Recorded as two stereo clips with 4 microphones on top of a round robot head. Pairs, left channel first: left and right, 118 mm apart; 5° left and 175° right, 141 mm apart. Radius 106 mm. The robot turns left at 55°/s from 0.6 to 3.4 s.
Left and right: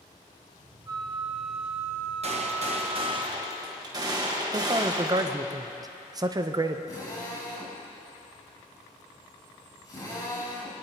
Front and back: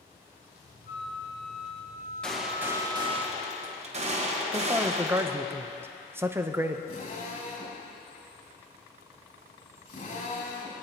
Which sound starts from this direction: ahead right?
A flute, at 0.9 s.